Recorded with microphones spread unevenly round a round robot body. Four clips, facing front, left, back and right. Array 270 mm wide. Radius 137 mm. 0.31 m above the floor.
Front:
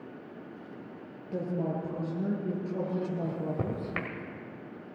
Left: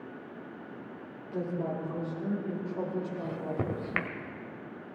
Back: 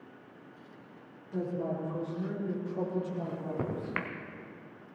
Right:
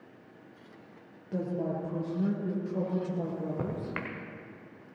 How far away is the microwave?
About 1.3 m.